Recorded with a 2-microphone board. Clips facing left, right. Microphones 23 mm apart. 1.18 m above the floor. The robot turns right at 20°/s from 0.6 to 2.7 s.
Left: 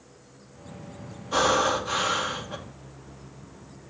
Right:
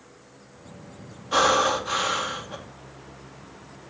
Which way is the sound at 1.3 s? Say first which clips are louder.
Right 2 dB; 20° right (ahead or behind).